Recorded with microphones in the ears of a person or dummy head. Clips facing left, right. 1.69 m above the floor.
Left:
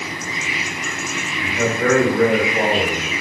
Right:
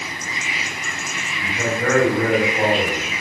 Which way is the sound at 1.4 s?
55° left (ahead or behind).